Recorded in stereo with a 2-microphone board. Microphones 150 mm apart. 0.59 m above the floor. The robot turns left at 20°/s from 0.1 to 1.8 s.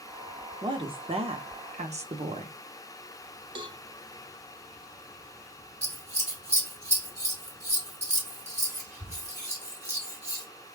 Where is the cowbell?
30° right (ahead or behind), 0.5 m.